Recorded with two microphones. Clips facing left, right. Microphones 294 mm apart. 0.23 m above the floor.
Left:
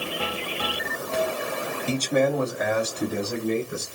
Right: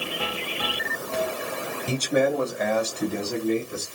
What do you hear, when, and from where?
1.9 s a man speaking: 15° right (ahead or behind), 1.3 m; by 3.9 s 25° left (ahead or behind), 2.5 m